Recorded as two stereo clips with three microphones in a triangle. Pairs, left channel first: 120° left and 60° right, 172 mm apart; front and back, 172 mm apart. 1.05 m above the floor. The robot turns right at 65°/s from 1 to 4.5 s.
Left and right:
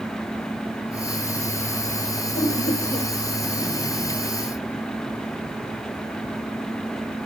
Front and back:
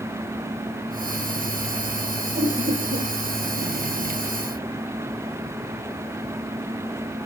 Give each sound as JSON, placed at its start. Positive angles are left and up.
{"t": 2.4, "sound": "laughter", "azimuth_deg": 130, "distance_m": 6.0}